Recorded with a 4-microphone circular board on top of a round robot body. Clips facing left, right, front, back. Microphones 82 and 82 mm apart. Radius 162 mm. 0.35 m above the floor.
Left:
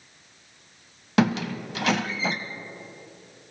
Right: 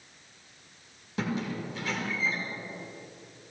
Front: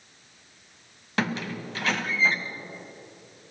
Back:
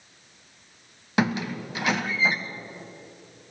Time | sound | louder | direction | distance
1.2 | a squeak | left 9 dB, back 4 dB | 100° left | 0.8 m